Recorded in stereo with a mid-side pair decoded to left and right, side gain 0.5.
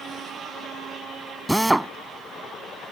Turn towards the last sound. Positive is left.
turn(degrees=-10)